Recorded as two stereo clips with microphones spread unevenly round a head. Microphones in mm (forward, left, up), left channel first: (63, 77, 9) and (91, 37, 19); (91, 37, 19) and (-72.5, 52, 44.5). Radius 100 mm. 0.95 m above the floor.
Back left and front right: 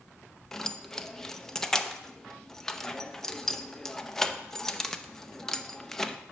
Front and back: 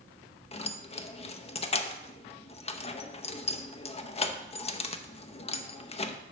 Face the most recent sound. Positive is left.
turn(degrees=45)